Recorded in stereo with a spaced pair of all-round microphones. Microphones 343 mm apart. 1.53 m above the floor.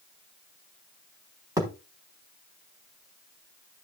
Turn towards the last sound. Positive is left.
turn(degrees=-10)  # may be behind; listen again after turning